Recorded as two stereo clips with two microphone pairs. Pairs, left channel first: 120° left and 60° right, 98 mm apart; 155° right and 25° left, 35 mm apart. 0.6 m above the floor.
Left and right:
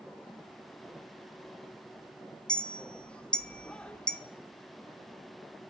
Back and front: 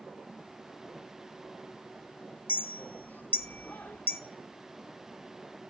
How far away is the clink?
About 0.6 m.